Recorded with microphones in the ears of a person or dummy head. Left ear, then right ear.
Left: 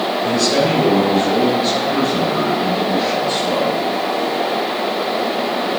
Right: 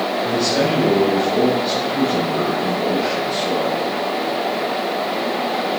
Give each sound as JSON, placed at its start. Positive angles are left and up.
{"t": 0.2, "sound": "a man speaking", "side_deg": 35, "distance_m": 3.5}